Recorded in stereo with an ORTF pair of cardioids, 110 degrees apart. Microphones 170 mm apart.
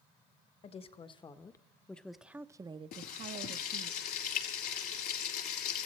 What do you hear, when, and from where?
0.6 s a woman speaking: 35° left, 1.4 m; by 3.9 s 65° right, 1.1 m
2.9 s frying: 65° left, 4 m